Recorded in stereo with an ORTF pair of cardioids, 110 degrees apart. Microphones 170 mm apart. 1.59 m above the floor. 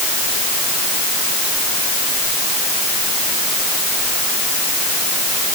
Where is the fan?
I don't hear a fan.